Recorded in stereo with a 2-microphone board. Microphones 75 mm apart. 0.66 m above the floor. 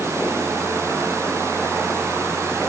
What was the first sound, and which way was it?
Only background noise.